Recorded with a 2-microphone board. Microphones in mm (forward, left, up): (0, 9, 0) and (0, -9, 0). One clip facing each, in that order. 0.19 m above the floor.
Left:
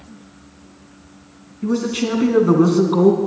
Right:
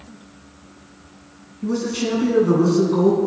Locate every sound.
1.6 s a man speaking: 15° left (ahead or behind), 2.5 m; by 3.2 s 45° left (ahead or behind), 2.5 m